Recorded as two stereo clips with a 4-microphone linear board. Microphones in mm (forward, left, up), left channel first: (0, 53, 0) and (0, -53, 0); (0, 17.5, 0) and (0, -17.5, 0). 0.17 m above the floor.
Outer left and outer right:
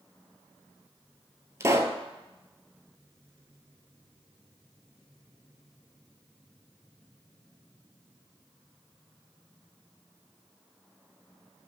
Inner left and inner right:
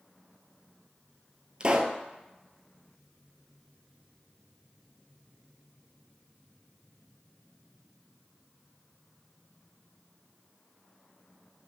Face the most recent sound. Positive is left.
turn(degrees=-30)  # may be behind; listen again after turning